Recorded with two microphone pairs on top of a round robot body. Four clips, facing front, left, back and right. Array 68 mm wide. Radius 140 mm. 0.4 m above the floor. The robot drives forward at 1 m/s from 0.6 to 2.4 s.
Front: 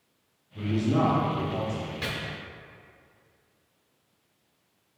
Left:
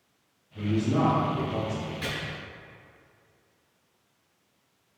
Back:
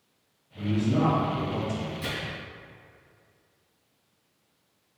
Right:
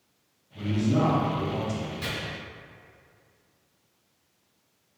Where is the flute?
No flute in this recording.